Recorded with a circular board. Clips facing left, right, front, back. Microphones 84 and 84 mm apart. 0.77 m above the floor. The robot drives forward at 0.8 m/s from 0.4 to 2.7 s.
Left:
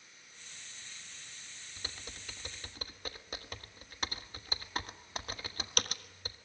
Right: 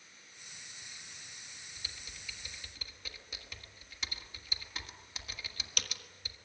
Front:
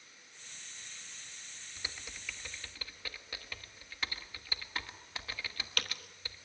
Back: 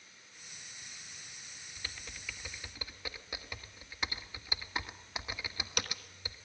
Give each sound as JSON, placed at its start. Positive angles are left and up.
{"t": 1.8, "sound": "typing on a keyboard", "azimuth_deg": 65, "distance_m": 1.4}